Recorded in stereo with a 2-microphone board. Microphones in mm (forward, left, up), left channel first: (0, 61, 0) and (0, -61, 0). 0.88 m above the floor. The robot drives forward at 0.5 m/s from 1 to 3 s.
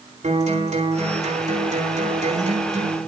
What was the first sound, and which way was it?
A guitar, 70° right (ahead or behind).